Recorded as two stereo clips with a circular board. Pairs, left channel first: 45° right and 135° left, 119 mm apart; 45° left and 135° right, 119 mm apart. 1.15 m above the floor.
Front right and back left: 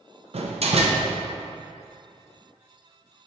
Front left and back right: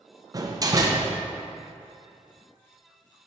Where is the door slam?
165° left, 0.6 m.